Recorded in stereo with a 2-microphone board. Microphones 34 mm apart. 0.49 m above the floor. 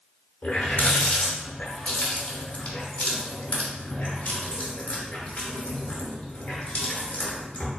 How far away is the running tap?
About 0.8 m.